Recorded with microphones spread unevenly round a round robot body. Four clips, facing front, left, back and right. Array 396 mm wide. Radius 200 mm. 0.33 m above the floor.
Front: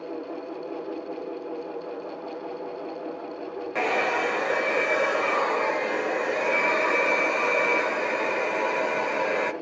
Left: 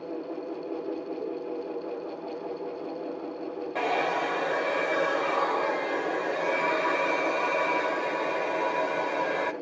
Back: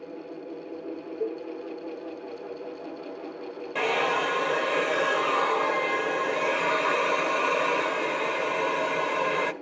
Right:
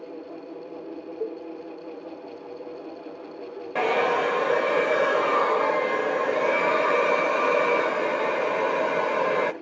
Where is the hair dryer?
85° right, 1.6 m.